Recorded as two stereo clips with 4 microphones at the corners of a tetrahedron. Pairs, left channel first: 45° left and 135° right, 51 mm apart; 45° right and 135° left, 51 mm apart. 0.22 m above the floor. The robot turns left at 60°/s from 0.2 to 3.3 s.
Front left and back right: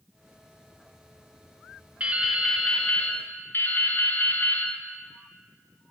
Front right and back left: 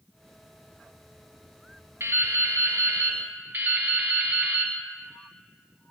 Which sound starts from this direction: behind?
Dripping, at 2.0 s.